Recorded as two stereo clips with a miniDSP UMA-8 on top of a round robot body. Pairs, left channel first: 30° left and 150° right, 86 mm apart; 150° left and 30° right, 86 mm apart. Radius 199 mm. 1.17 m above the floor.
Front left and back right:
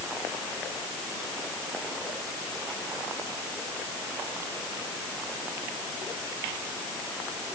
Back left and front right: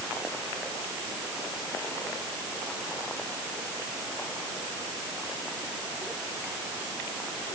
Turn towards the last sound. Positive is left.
No sound to turn to.